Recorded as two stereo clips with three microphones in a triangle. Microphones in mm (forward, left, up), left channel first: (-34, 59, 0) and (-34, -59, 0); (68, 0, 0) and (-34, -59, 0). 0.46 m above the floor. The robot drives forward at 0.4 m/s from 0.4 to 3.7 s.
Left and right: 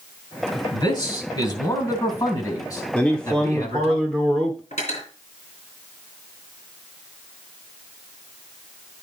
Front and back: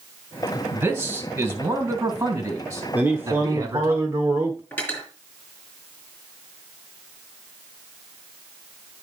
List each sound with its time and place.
0.7 s a man speaking: 135° left, 2.5 m; by 3.9 s 150° left, 3.5 m
2.9 s a man speaking: 160° left, 1.2 m; by 4.6 s 170° left, 1.3 m
4.7 s cutlery clinking: 110° left, 5.5 m